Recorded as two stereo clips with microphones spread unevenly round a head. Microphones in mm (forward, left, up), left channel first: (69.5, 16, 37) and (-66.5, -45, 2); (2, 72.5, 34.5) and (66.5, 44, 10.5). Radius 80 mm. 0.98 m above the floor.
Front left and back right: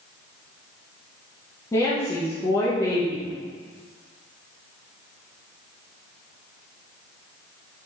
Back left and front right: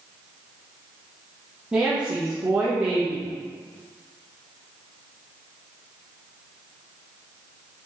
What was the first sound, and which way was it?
A woman speaking, 55° right.